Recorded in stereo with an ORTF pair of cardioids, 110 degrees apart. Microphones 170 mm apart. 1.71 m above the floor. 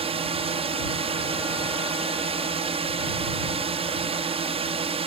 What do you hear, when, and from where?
0.0 s a drone: 35° right